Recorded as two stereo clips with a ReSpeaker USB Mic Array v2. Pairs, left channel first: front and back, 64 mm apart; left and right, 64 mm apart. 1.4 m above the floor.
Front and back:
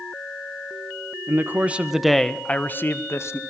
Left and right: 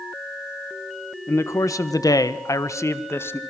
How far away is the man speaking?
About 1.7 m.